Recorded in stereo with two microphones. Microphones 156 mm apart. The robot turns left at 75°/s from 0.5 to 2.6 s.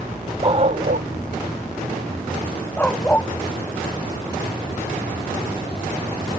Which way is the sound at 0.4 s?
35° right (ahead or behind).